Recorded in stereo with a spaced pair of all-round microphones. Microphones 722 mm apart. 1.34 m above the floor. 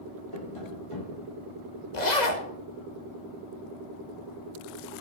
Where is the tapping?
45° left (ahead or behind), 2 m.